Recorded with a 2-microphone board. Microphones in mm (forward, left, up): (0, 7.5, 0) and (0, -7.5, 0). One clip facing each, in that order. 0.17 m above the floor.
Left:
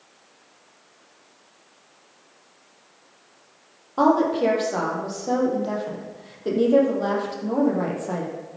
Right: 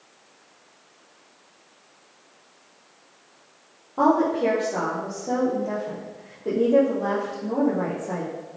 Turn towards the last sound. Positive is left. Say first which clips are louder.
# left 1 dB
turn(degrees=65)  # may be behind; listen again after turning